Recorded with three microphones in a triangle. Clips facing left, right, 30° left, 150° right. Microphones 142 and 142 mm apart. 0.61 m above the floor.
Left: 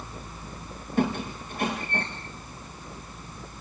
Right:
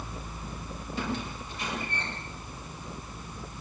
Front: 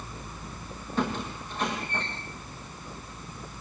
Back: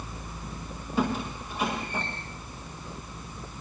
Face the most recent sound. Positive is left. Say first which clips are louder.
# left 8 dB, back 2 dB
turn(degrees=130)